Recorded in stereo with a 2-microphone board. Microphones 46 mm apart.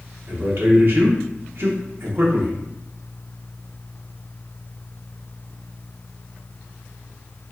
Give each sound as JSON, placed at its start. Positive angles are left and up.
{"t": 0.3, "sound": "a man speaking", "side_deg": -55, "distance_m": 1.0}